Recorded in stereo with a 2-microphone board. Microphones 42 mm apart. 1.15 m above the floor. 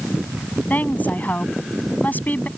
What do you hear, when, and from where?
0.7 s a woman speaking: 45° left (ahead or behind)